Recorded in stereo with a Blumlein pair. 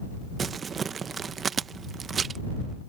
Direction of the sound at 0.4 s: 20° right.